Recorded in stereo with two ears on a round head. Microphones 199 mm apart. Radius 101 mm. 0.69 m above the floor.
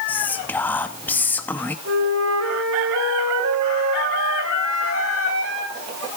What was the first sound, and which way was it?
Whispering, 10° left (ahead or behind).